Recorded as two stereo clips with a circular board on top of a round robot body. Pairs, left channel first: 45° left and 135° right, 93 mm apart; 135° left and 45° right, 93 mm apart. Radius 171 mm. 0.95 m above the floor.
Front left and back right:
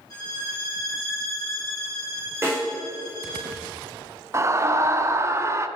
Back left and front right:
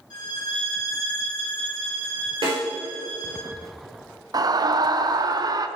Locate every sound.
0.1 s a violin: 95° left, 3 m
2.4 s a snare drum: 75° right, 4.5 m
4.3 s a scream: 80° right, 1.0 m